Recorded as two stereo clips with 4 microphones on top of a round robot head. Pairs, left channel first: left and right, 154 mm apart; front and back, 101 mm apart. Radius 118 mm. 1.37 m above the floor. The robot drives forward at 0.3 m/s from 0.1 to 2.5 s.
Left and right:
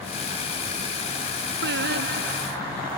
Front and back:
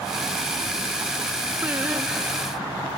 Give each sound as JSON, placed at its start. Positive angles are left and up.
{"t": 1.6, "sound": "singing", "azimuth_deg": -100}